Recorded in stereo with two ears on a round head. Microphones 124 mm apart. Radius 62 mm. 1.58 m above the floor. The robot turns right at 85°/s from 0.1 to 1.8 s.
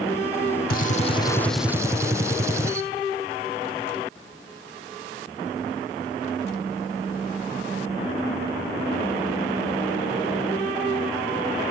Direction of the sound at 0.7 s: 105° left.